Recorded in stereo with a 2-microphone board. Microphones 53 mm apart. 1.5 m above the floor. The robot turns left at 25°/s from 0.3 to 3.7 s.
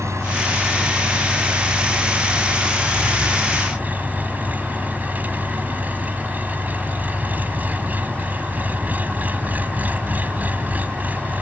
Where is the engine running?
60° right; by 11.4 s 145° right.